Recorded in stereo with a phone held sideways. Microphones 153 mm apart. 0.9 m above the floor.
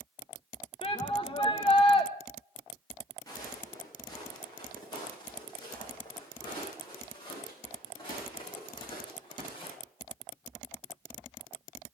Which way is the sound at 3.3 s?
25° left (ahead or behind).